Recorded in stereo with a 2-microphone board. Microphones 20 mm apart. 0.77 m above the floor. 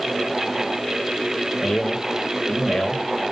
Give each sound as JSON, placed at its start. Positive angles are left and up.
{"t": 1.6, "sound": "a man speaking", "side_deg": 60, "distance_m": 1.5}